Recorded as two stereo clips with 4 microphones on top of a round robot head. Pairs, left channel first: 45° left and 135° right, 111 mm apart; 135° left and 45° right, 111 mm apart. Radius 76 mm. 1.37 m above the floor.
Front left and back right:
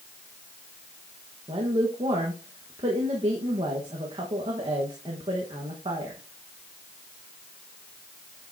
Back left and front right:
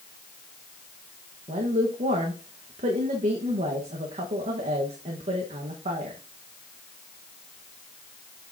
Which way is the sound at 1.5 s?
80° right.